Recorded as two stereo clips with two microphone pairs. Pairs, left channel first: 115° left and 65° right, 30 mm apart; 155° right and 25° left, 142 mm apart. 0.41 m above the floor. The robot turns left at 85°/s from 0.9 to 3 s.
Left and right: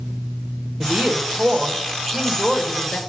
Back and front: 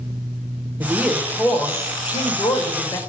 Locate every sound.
0.8 s a woman speaking: 35° right, 1.1 m; by 3.0 s 150° left, 1.1 m